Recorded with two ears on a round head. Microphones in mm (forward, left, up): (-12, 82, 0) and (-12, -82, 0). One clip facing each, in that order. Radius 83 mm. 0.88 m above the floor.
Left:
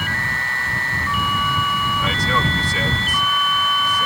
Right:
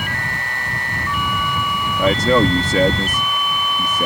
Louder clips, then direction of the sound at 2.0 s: Right 11 dB; 40° right (ahead or behind).